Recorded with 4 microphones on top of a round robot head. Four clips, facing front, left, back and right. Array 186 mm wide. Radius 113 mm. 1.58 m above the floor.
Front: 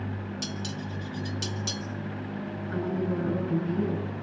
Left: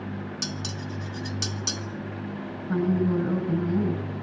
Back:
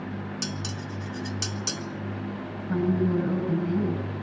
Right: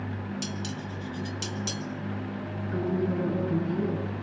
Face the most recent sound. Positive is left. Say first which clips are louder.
# left 4 dB, back 5 dB
turn(degrees=130)